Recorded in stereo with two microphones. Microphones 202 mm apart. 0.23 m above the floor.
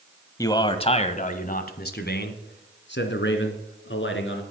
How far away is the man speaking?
About 0.9 m.